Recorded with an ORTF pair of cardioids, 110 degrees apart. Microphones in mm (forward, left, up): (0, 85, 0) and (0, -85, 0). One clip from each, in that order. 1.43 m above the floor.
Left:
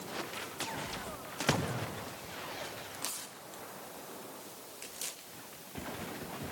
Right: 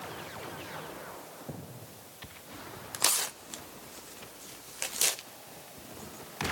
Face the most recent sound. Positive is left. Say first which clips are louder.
# right 12 dB
turn(degrees=-65)